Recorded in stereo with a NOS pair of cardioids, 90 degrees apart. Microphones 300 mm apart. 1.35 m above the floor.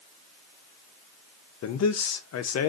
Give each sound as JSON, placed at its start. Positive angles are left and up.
{"t": 1.6, "sound": "a man speaking", "azimuth_deg": 55, "distance_m": 0.9}